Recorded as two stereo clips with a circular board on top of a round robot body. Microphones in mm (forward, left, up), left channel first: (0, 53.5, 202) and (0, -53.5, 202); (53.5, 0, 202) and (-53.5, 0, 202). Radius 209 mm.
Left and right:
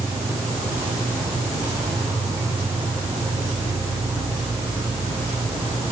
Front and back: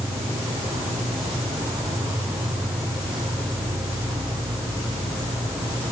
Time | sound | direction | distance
0.0 | an insect | 120° right | 4 m